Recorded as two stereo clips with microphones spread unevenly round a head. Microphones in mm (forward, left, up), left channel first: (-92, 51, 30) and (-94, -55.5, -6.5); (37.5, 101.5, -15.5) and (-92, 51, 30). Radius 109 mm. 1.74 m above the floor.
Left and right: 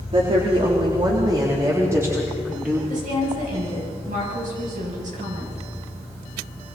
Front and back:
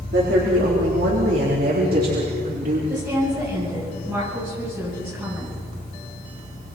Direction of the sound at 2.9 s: 75° right.